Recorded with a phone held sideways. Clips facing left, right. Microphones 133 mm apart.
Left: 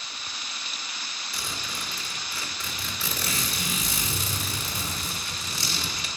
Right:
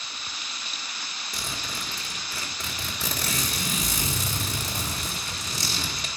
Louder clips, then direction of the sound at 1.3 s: Right 1 dB; 45° right (ahead or behind).